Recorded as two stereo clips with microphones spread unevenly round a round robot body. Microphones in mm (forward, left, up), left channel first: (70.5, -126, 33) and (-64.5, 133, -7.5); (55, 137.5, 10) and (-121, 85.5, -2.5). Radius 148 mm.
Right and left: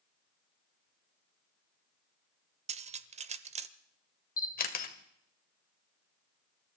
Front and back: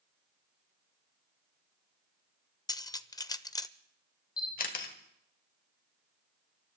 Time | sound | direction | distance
2.7 | cutlery clinking | 80° left | 0.7 m
4.4 | a camera shutter | 5° right | 1.8 m